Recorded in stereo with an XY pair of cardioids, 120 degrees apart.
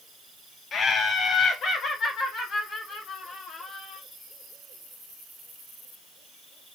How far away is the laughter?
About 0.8 m.